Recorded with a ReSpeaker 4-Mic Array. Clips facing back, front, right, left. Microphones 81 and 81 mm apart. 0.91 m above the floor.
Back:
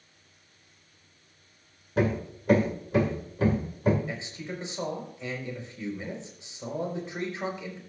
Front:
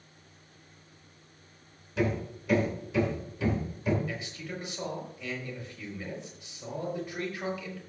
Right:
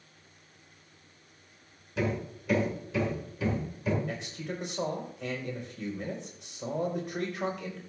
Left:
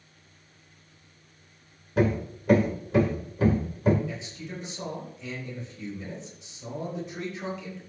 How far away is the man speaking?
About 5 m.